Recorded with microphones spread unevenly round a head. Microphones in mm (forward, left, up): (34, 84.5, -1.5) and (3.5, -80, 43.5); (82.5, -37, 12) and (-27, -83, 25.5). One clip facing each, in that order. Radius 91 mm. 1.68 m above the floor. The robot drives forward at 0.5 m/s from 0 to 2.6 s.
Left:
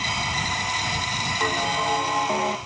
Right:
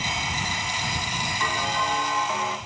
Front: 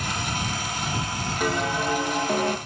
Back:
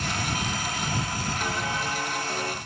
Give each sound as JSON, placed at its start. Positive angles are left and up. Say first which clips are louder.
{"t": 1.4, "sound": "a bell", "louder": "left 3 dB, front 8 dB", "azimuth_deg": 10, "distance_m": 2.0}